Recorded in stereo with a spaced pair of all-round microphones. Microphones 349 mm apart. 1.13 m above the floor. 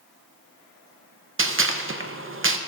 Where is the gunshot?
35° right (ahead or behind), 0.6 m.